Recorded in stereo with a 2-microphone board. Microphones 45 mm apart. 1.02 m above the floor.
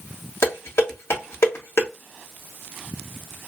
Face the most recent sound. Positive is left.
turn(degrees=85)